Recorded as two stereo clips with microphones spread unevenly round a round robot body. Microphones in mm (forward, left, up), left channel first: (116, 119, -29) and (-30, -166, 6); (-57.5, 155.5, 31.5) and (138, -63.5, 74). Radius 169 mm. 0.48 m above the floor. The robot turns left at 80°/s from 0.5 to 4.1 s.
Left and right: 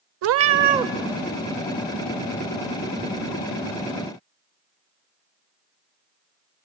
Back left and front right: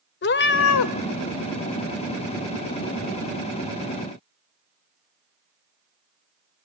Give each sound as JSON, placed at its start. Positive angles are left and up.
{"t": 0.2, "sound": "a cat meowing", "azimuth_deg": -170, "distance_m": 0.5}